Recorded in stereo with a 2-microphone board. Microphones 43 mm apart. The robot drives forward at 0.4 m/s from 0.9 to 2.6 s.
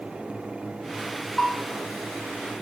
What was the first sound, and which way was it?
A bell, 15° left (ahead or behind).